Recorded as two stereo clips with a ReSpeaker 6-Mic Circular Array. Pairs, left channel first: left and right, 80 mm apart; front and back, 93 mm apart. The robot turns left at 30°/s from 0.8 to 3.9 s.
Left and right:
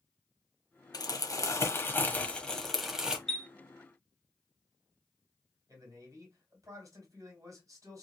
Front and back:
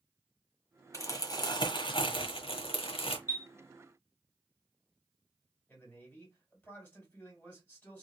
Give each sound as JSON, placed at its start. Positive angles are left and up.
{"t": 0.9, "sound": "crumpling", "azimuth_deg": 55, "distance_m": 0.8}
{"t": 3.3, "sound": "a chime", "azimuth_deg": 10, "distance_m": 0.9}
{"t": 5.7, "sound": "a man speaking", "azimuth_deg": -70, "distance_m": 2.0}